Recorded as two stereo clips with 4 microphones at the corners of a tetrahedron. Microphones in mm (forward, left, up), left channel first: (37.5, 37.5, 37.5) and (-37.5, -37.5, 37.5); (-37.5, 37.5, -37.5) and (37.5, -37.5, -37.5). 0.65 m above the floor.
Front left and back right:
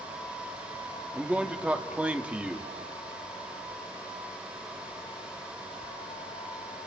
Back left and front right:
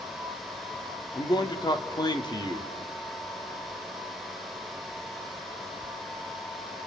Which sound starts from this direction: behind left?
A man speaking, at 1.1 s.